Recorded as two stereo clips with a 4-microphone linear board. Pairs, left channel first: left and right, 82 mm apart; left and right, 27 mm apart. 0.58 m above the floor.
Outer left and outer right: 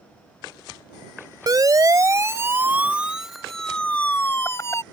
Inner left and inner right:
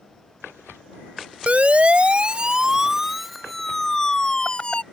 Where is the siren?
50° right (ahead or behind); by 4.8 s 40° left (ahead or behind).